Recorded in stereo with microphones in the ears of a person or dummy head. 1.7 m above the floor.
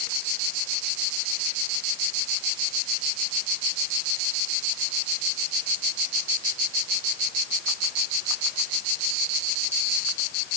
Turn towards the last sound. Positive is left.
No sound to turn to.